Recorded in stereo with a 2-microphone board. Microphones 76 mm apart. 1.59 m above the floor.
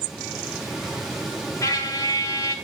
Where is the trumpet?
50° left (ahead or behind), 2 m.